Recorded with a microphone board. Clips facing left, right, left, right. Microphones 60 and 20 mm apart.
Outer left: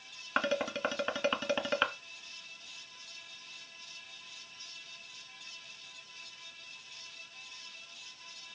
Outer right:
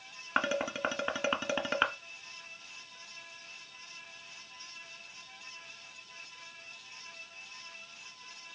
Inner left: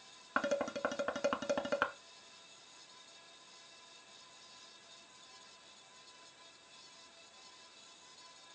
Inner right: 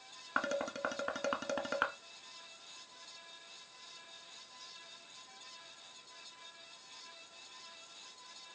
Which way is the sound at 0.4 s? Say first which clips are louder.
Even, inner left 1 dB; 10° right (ahead or behind).